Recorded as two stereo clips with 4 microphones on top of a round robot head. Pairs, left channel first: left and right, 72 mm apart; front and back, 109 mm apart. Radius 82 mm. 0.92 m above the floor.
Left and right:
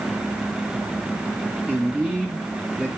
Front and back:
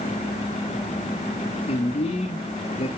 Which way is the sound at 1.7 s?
15° right.